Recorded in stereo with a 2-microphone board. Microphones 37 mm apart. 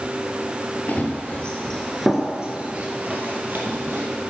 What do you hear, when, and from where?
0.9 s running footsteps: 50° left (ahead or behind), 1.7 m; by 4.1 s 55° right (ahead or behind), 2.5 m